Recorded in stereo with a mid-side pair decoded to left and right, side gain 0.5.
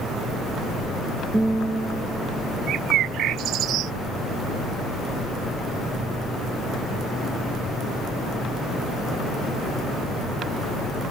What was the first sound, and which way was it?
A guitar, 15° right.